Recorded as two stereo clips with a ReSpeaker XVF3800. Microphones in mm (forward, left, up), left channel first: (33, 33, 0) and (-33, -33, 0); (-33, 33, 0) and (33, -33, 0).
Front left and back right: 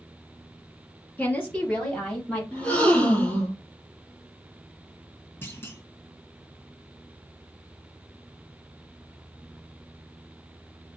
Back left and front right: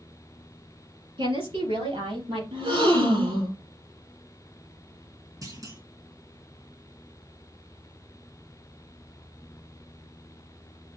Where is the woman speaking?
30° right, 3 m; by 2.4 s 45° right, 4.5 m.